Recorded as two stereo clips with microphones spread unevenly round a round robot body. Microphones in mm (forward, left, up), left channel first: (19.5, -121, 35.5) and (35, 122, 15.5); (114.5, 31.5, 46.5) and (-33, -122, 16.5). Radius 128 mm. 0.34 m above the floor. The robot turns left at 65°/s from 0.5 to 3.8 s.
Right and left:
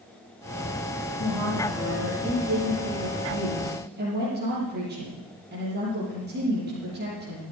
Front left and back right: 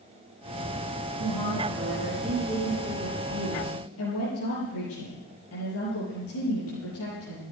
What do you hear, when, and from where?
1.2 s a woman speaking: 155° right, 8.5 m; by 7.5 s 35° left, 8.5 m